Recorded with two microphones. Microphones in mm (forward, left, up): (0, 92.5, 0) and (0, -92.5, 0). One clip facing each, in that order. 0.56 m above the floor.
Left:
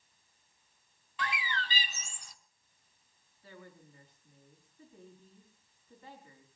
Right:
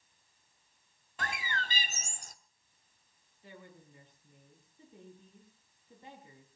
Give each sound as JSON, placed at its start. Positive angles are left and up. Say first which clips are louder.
{"t": 1.2, "sound": "a bird", "louder": "left 1 dB", "side_deg": -45, "distance_m": 1.0}
{"t": 3.4, "sound": "a woman speaking", "louder": "even", "side_deg": -20, "distance_m": 6.0}